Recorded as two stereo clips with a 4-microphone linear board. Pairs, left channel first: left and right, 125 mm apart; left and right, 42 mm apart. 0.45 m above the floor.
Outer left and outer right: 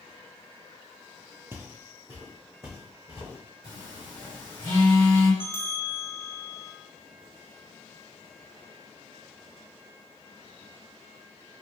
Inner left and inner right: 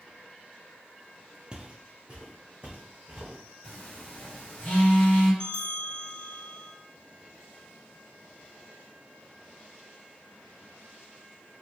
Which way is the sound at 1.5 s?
20° right (ahead or behind).